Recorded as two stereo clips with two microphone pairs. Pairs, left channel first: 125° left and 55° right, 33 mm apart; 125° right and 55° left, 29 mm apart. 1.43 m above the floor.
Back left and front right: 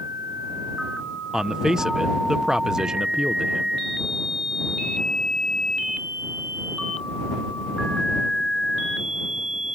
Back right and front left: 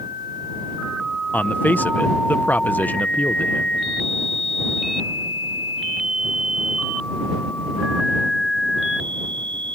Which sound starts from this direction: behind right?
A man speaking, at 1.3 s.